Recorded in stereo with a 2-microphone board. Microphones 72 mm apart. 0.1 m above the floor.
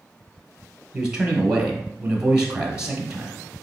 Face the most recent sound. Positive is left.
turn(degrees=-10)  # may be behind; listen again after turning